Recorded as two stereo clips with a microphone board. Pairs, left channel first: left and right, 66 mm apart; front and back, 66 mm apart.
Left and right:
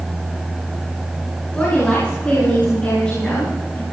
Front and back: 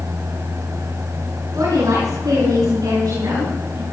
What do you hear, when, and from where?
1.5 s a woman speaking: 160° left, 9.5 m; by 3.8 s 165° left, 11.5 m